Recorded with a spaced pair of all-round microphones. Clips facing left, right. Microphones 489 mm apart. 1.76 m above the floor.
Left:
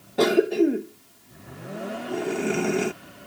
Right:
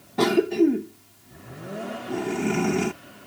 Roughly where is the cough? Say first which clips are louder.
Even; centre.